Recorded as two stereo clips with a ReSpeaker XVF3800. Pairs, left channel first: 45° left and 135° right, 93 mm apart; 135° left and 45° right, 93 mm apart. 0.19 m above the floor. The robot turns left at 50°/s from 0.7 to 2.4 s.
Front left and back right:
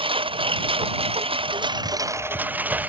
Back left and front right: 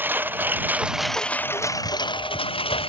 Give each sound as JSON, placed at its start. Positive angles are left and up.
{"t": 0.0, "sound": "a lawn mower", "azimuth_deg": -115}